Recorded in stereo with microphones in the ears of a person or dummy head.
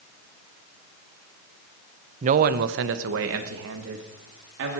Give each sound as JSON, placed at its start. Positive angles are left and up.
{"t": 2.2, "sound": "a man speaking", "side_deg": -40, "distance_m": 0.9}